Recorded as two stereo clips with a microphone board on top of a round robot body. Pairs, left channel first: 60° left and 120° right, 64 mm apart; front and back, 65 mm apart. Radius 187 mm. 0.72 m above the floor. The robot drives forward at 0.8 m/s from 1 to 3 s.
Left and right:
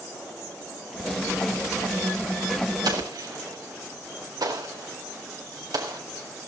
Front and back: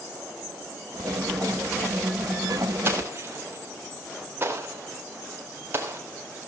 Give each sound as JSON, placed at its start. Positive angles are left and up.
{"t": 2.9, "sound": "an explosion", "azimuth_deg": -125, "distance_m": 4.0}